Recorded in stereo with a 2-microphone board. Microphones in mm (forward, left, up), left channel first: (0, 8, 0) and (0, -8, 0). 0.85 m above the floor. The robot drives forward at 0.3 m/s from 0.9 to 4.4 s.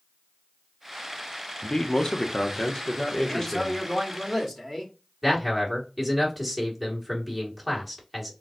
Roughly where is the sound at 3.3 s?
Centre.